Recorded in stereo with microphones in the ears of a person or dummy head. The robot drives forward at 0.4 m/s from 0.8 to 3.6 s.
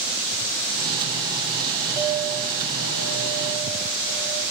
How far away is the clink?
About 1.9 m.